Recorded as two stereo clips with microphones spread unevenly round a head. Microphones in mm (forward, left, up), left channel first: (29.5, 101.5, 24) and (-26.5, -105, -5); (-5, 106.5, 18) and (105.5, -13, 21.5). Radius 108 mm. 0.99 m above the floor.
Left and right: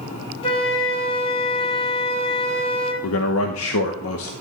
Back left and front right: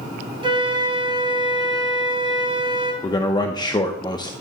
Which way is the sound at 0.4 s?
10° left.